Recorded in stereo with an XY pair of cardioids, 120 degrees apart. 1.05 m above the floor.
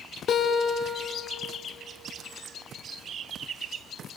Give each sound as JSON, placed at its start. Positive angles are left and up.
{"t": 0.3, "sound": "a guitar", "azimuth_deg": 50, "distance_m": 1.9}